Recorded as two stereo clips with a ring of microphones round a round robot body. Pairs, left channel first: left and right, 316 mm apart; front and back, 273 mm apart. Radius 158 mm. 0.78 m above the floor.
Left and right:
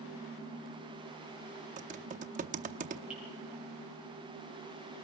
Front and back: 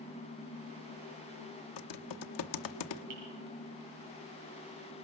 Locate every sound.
1.8 s typing on a keyboard: 20° right, 0.8 m
3.1 s dripping: 175° right, 5.5 m